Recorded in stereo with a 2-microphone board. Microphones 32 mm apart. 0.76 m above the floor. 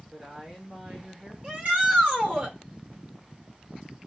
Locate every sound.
0.1 s a woman speaking: 15° right (ahead or behind), 1.9 m
1.4 s a shout: 50° right (ahead or behind), 3.5 m